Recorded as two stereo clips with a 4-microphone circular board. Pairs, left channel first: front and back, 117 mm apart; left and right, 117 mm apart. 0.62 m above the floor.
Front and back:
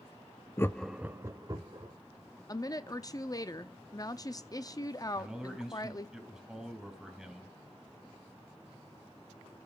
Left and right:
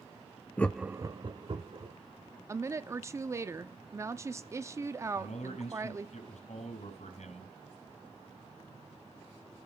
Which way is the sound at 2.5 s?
40° right.